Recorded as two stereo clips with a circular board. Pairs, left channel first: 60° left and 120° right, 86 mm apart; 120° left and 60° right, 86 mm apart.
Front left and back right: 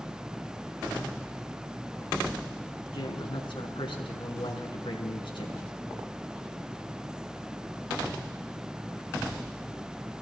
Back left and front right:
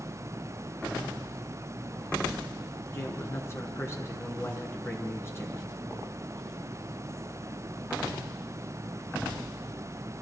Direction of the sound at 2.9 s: 60° left.